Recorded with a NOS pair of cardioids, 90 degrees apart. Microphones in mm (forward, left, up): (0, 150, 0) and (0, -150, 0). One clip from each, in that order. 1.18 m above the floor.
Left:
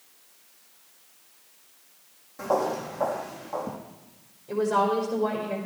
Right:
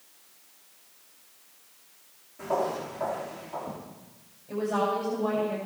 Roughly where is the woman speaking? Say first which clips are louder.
Left 4 dB; ahead left.